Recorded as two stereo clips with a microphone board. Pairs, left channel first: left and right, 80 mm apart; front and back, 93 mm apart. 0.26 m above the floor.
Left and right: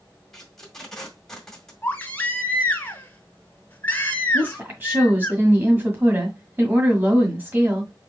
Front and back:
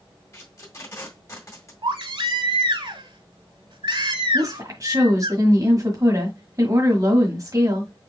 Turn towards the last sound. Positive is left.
turn(degrees=-145)